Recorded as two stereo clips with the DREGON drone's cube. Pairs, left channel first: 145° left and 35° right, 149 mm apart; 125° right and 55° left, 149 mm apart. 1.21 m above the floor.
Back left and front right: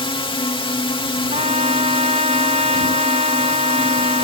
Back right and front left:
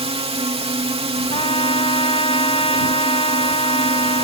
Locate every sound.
0.0 s a drone: 95° left
1.3 s a trumpet: 75° right